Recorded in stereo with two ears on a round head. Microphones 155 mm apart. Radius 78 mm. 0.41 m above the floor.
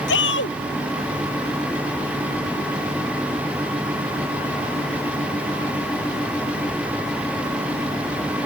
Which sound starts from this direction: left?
A shout, at 0.1 s.